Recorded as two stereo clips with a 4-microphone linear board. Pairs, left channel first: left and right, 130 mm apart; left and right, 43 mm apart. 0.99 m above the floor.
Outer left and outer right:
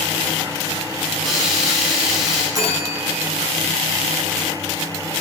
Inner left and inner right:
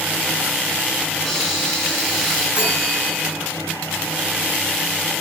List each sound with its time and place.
1.2 s a hiss: centre (ahead or behind), 7.5 m
2.5 s a bell: 30° right (ahead or behind), 6 m